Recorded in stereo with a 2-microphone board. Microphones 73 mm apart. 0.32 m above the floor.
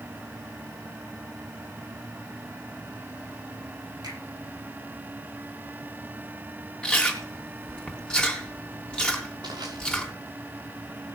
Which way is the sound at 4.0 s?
60° right (ahead or behind).